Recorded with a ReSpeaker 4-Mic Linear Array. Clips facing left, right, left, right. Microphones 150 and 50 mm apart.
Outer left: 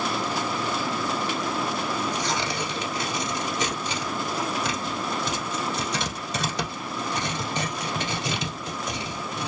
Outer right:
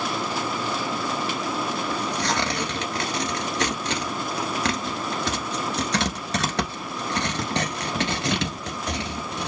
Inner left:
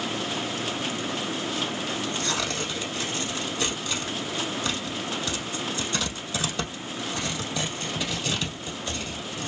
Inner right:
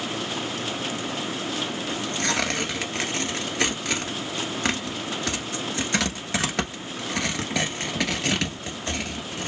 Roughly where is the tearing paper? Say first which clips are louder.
Outer right 1 dB, inner right 2 dB; right.